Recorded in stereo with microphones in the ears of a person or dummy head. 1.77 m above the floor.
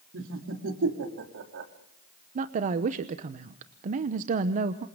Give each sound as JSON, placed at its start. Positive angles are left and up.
{"t": 0.1, "sound": "laughter", "side_deg": -75, "distance_m": 3.5}
{"t": 2.4, "sound": "a woman speaking", "side_deg": -40, "distance_m": 0.9}